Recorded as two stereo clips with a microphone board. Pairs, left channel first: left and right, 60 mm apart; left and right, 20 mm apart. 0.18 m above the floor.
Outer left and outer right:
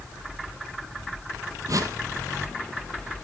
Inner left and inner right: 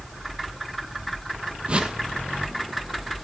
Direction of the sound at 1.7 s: 65° right (ahead or behind).